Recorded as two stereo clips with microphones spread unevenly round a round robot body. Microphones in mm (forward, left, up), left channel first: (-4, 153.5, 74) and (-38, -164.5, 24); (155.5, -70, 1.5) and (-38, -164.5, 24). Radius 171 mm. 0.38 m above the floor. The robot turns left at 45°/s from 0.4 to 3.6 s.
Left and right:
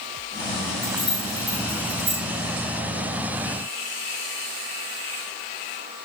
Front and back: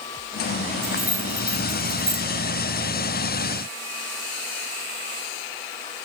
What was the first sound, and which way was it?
Keys jangling, 10° right.